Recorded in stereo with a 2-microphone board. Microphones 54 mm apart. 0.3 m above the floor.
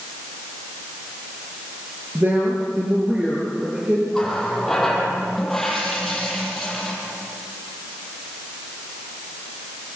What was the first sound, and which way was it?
A woman speaking, 35° right (ahead or behind).